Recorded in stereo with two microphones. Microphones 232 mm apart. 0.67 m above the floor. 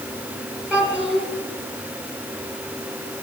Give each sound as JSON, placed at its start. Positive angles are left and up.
{"t": 0.7, "sound": "a child speaking", "side_deg": -5, "distance_m": 3.0}